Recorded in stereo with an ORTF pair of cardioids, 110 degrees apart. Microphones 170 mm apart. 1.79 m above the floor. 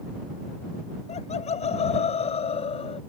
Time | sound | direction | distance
1.1 | laughter | 40° left | ?